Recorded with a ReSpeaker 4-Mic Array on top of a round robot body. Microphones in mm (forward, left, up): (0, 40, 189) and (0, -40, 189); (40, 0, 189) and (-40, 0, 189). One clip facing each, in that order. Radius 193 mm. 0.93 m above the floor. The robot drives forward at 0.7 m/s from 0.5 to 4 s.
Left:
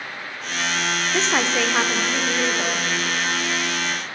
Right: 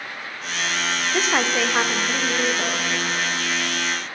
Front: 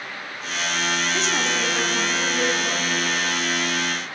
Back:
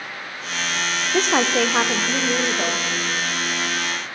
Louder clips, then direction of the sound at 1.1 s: Even, back 5 dB; 170° right.